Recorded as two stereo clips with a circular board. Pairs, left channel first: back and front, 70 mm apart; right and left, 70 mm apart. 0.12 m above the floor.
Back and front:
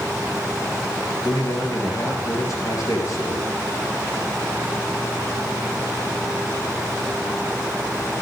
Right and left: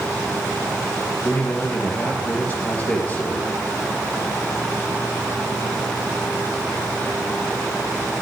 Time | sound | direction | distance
1.2 | a man speaking | 155° right | 3 m